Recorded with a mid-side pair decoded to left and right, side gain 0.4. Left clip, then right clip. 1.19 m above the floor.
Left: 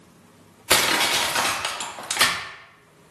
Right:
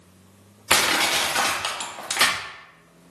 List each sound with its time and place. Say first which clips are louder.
0.7 s crushing: even; 10° left, 1.5 m